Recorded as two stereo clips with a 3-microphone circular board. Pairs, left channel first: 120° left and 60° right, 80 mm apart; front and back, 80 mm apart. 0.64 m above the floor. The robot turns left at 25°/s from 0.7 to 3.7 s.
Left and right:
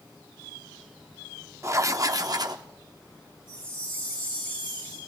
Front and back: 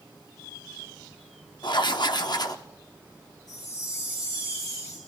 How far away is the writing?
About 0.8 m.